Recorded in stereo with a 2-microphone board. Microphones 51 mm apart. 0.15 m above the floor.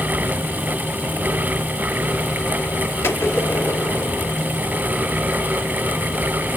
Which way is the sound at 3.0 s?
60° left (ahead or behind).